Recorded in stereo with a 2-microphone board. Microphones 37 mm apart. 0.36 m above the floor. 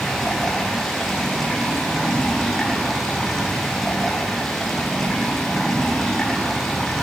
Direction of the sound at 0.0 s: 5° left (ahead or behind).